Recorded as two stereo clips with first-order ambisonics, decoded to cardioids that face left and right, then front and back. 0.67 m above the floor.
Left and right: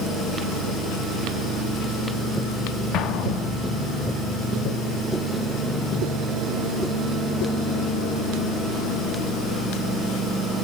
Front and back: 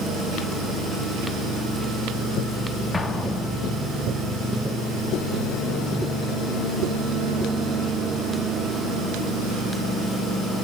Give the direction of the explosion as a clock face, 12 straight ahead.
10 o'clock.